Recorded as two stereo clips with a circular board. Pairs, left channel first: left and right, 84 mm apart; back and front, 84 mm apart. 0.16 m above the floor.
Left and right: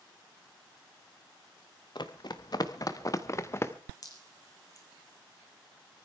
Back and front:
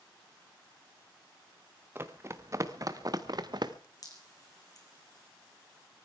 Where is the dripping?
135° left, 2 m.